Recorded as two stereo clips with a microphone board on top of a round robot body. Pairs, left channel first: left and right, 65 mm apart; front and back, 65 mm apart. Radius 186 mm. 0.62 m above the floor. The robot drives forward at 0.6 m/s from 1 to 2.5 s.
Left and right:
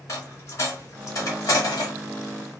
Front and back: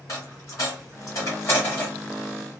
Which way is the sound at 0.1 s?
45° left.